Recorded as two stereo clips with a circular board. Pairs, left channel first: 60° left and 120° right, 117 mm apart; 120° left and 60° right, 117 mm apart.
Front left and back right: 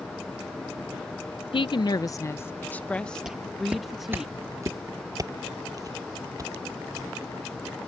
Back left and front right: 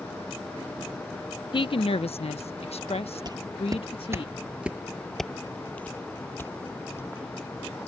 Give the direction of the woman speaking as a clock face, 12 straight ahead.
9 o'clock.